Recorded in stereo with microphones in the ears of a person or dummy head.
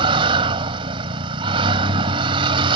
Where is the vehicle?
25° right (ahead or behind).